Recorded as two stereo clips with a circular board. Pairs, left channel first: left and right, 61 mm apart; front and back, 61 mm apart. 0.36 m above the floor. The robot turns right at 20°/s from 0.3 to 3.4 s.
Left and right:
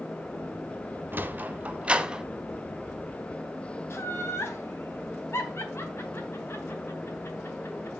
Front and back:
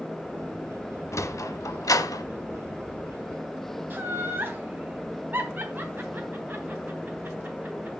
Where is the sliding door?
35° right, 0.7 m; by 2.2 s 10° right, 0.7 m.